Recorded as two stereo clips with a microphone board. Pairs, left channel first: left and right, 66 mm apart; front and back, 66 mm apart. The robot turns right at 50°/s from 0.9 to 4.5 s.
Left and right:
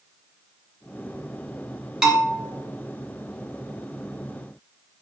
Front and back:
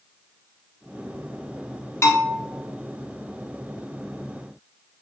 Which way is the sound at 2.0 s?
15° right.